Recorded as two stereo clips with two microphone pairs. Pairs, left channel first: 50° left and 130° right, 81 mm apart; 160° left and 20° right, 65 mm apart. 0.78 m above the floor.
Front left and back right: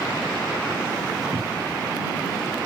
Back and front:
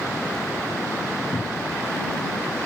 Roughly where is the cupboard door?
Behind.